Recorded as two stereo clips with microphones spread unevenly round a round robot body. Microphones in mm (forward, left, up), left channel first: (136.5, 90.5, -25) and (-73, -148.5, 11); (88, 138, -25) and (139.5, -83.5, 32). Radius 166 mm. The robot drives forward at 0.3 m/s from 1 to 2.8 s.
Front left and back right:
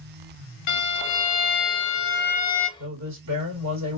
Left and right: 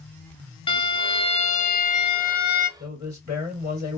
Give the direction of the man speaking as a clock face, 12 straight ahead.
6 o'clock.